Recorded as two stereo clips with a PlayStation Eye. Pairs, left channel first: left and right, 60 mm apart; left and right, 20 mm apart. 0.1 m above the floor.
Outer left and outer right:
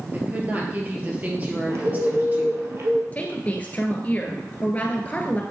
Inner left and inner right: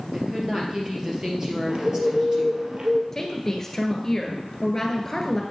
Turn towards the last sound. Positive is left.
turn(degrees=25)  # may be behind; listen again after turning